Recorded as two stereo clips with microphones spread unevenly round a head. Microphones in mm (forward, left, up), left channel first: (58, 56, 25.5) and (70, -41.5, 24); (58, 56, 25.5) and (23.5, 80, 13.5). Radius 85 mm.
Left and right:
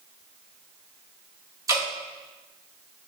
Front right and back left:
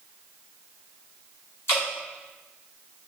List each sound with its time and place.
1.7 s dripping: 25° right, 1.7 m